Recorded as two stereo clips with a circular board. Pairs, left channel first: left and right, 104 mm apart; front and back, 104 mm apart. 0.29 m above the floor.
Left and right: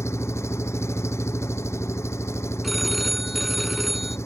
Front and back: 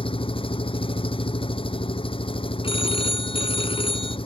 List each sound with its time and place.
0.0 s an engine running: 25° left
2.6 s a phone ringing: straight ahead